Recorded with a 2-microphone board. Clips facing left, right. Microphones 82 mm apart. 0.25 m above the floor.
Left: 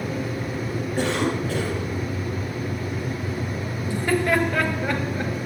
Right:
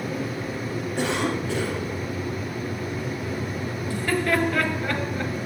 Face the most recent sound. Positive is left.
turn(degrees=20)  # may be behind; listen again after turning